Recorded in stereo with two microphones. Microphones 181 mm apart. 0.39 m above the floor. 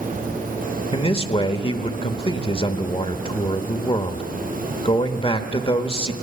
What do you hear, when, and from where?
0.9 s a man speaking: 30° left (ahead or behind), 1.0 m